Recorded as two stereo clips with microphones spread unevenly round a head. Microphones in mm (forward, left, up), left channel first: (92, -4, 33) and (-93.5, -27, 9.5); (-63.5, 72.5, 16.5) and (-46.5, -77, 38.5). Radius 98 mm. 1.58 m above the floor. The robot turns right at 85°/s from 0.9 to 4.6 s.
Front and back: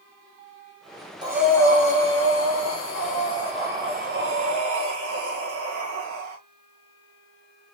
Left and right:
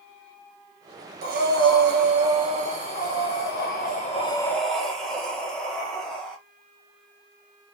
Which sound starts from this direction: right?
Breathing, at 1.2 s.